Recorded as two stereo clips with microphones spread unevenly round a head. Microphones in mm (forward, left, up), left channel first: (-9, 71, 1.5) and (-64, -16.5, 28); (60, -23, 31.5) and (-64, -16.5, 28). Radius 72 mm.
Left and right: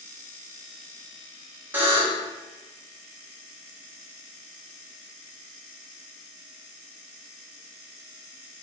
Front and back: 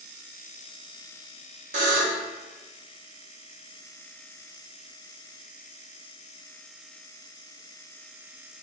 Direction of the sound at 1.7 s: 170° right.